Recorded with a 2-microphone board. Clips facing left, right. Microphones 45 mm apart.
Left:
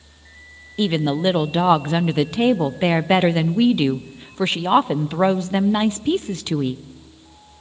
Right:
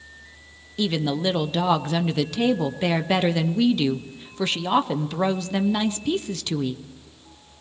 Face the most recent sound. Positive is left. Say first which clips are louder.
# left 4 dB
turn(degrees=25)  # may be behind; listen again after turning